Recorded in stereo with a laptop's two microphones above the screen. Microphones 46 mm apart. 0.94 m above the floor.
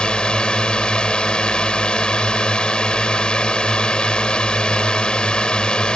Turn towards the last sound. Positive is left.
turn(degrees=25)  # may be behind; listen again after turning